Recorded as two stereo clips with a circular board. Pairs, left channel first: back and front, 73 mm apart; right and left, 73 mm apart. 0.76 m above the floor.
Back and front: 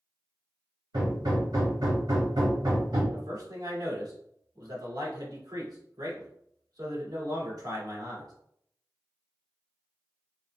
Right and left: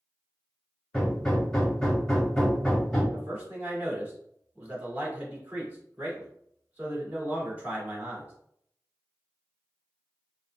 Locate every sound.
0.9 s hammering: 5° right, 1.3 m
3.1 s a man speaking: 25° left, 1.7 m